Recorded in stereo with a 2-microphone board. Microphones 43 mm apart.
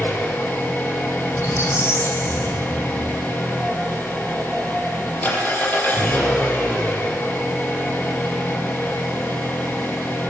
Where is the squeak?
80° left, 5.5 m.